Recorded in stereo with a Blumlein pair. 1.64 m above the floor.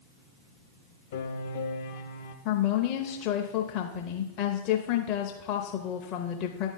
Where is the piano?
55° left, 0.8 m.